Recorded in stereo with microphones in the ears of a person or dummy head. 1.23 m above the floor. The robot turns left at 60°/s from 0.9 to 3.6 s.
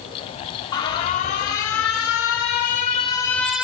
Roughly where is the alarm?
Behind left.